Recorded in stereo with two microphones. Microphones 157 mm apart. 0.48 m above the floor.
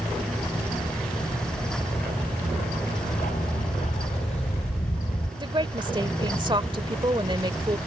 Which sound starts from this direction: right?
A woman speaking, at 5.4 s.